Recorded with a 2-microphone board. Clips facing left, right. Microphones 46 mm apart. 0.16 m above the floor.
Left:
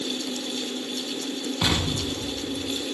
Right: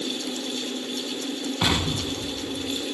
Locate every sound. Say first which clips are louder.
1.6 s an explosion: right 1 dB; 15° right (ahead or behind), 1.0 m